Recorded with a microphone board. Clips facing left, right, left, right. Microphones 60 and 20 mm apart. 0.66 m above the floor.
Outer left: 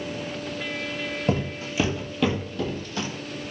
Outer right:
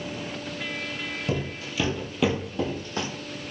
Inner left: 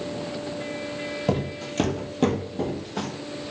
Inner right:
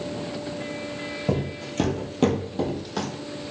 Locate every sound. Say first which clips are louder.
1.3 s footsteps: outer left 4 dB, even; 40° left (ahead or behind), 0.8 m; by 3.1 s 40° right (ahead or behind), 1.1 m